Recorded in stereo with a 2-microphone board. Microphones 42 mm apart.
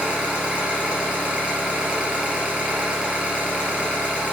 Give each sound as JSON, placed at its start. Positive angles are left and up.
{"t": 0.0, "sound": "an engine running", "side_deg": -25, "distance_m": 3.0}